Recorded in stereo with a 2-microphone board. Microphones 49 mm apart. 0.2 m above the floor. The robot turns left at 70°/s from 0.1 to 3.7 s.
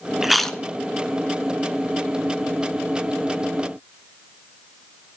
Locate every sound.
0.2 s chewing: 10° right (ahead or behind), 0.5 m; by 0.6 s 15° left (ahead or behind), 0.5 m